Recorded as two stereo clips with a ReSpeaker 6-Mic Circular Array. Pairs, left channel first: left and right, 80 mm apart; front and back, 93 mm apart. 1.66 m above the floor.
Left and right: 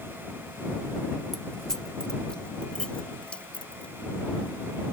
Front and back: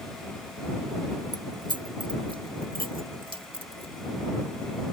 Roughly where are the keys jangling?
Behind.